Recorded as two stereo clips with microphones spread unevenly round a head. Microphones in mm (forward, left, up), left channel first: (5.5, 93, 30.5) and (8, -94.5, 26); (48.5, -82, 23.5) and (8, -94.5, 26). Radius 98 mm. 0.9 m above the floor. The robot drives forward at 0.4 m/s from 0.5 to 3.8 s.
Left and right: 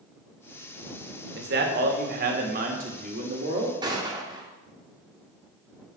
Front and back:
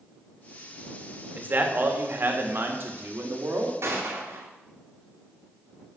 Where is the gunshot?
160° right, 2 m.